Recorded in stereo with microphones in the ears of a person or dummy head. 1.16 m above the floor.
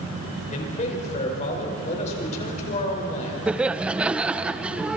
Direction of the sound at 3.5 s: 10° right (ahead or behind).